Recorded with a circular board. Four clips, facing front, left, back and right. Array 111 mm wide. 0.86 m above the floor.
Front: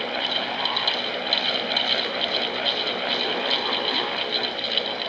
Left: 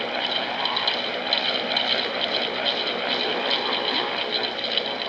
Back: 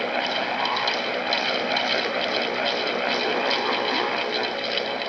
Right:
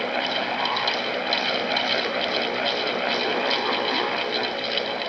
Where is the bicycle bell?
No bicycle bell in this recording.